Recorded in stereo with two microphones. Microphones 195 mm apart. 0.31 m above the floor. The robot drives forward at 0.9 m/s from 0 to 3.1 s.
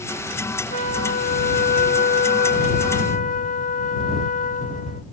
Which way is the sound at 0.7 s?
40° left (ahead or behind).